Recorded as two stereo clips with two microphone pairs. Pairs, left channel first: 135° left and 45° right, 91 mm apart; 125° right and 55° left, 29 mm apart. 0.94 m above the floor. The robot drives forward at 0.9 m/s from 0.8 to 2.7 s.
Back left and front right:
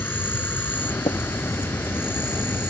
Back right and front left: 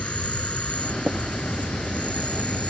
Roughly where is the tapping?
Behind left.